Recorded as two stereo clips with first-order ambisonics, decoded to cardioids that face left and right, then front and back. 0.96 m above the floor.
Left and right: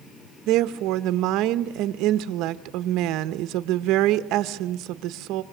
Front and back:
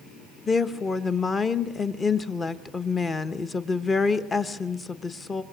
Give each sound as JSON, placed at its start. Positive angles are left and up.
{"t": 0.5, "sound": "a woman speaking", "azimuth_deg": -70, "distance_m": 0.9}